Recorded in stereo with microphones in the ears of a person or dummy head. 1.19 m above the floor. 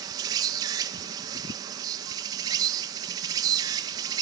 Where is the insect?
25° right (ahead or behind), 1.4 m.